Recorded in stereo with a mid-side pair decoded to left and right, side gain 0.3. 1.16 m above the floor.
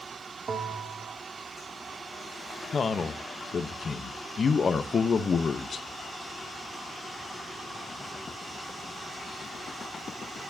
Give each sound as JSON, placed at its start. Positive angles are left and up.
{"t": 0.5, "sound": "a bell", "azimuth_deg": -65, "distance_m": 1.7}
{"t": 2.7, "sound": "a man speaking", "azimuth_deg": 60, "distance_m": 0.9}